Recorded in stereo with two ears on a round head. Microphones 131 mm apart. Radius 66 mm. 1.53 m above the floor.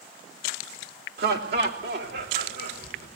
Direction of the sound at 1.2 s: 70° right (ahead or behind).